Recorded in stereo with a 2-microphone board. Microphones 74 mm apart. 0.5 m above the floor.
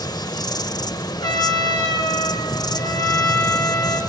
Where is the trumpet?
80° left, 6 m.